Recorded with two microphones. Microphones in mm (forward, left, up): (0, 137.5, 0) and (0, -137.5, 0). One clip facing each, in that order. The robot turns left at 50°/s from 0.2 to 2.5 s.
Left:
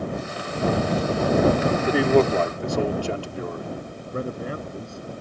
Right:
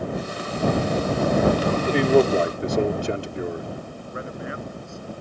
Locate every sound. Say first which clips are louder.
1.7 s a man speaking: right 3 dB; 15° left; by 3.7 s 20° right
4.1 s a man speaking: left 5 dB; 40° left (ahead or behind)